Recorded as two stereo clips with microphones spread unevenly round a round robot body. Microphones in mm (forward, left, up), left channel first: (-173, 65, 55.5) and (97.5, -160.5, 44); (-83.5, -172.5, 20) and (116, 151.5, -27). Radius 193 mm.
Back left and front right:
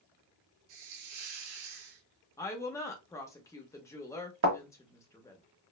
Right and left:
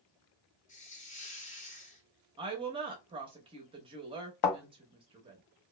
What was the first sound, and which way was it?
A hiss, 50° right.